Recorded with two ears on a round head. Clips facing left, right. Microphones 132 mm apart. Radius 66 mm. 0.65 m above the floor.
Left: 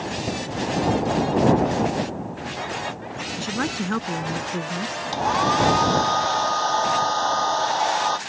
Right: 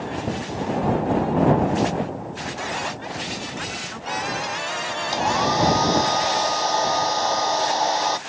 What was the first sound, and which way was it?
A woman speaking, 75° left (ahead or behind).